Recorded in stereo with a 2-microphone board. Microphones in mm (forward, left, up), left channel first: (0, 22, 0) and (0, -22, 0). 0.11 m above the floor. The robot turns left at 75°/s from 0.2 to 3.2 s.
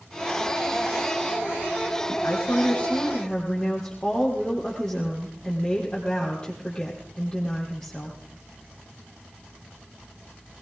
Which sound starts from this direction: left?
A woman speaking, at 2.1 s.